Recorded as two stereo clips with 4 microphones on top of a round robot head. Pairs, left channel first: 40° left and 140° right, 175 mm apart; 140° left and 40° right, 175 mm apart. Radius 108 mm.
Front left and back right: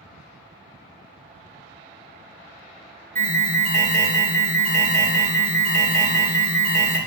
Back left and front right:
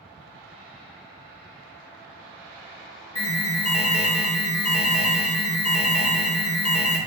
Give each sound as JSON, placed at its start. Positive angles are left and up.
{"t": 3.1, "sound": "an alarm", "azimuth_deg": 180, "distance_m": 3.0}